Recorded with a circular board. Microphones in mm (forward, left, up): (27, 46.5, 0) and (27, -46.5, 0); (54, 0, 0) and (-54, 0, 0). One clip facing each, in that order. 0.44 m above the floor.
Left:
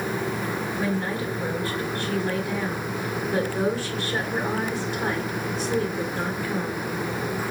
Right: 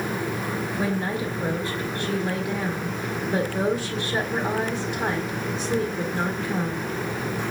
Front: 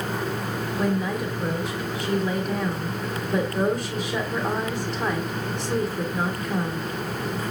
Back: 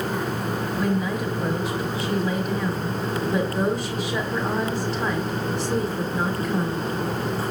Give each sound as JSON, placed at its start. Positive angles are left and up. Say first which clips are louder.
{"t": 0.8, "sound": "a woman speaking", "louder": "right 1 dB, front 1 dB", "azimuth_deg": -90, "distance_m": 1.3}